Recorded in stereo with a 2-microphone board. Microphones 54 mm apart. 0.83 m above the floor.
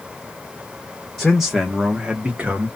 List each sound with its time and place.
1.2 s a man speaking: 5° left (ahead or behind), 0.8 m; by 2.7 s 25° right (ahead or behind), 1.0 m